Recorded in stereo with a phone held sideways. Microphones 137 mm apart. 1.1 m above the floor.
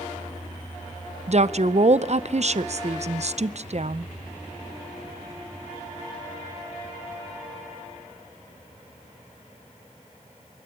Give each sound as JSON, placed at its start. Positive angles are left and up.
{"t": 1.3, "sound": "a woman speaking", "side_deg": -55, "distance_m": 0.6}